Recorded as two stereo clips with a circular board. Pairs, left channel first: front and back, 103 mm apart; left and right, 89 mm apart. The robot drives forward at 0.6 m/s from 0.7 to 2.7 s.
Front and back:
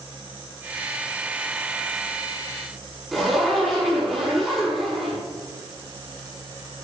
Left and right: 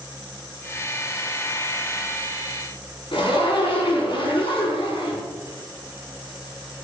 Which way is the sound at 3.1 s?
95° left.